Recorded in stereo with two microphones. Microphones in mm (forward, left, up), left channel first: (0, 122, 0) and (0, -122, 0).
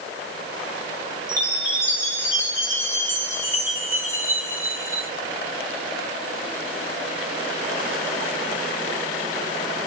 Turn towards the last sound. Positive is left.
turn(degrees=10)  # may be behind; listen again after turning